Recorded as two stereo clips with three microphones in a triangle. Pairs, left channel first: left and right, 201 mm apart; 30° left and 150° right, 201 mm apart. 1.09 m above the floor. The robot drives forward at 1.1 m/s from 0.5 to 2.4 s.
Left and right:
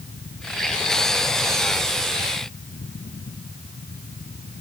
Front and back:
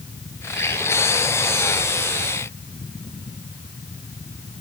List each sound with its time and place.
Only background noise.